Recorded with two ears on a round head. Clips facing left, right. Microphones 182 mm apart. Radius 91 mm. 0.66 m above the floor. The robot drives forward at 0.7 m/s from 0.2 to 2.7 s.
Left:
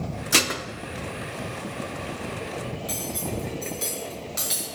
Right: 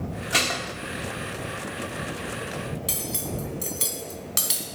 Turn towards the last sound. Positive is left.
turn(degrees=-65)  # may be behind; listen again after turning